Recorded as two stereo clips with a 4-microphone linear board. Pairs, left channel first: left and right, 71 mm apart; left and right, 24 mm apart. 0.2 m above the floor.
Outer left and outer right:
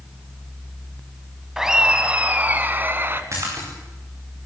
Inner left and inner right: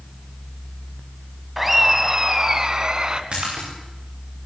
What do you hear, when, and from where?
1.6 s laughter: 5° right (ahead or behind), 1.2 m; by 3.2 s 35° right (ahead or behind), 1.7 m
3.3 s a splash: 45° right (ahead or behind), 8.5 m